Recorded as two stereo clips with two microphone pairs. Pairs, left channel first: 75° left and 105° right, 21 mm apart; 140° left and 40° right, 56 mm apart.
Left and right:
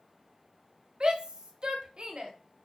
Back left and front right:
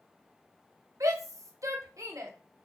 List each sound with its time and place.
1.0 s a shout: 55° right, 0.8 m